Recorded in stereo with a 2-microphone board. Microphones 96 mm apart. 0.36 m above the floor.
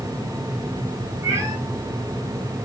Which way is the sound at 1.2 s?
25° right (ahead or behind).